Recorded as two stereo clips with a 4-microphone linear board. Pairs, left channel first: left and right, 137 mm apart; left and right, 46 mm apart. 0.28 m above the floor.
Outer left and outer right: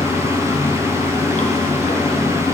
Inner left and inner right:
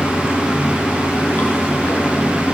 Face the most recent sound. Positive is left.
turn(degrees=65)  # may be behind; listen again after turning